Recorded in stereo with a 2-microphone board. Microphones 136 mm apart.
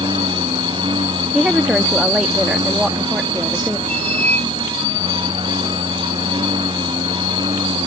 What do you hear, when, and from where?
0.0 s a lawn mower: 40° right (ahead or behind)
1.3 s a woman speaking: 5° right (ahead or behind)
3.9 s a squeak: 55° right (ahead or behind)